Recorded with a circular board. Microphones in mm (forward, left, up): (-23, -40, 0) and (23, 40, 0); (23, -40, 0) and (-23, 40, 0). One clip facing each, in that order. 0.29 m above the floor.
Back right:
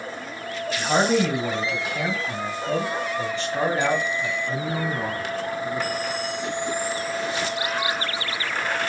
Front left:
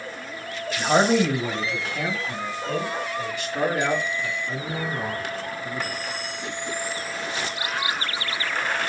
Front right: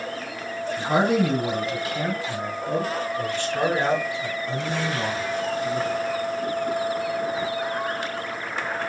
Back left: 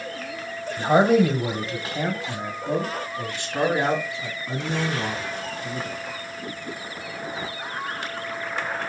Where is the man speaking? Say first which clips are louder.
Front left 1 dB, back left 4 dB; 135° left, 1.5 m; by 6.0 s 150° right, 3 m.